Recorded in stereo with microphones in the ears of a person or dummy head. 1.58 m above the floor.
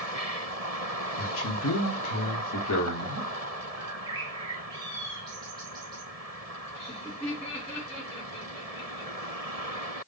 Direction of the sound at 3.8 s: 20° right (ahead or behind).